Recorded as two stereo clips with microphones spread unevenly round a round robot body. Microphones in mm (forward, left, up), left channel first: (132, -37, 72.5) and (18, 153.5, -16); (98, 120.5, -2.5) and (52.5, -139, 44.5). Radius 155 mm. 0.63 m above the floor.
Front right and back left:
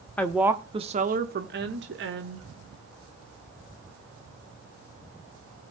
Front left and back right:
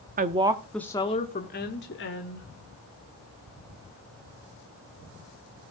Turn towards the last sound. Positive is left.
turn(degrees=115)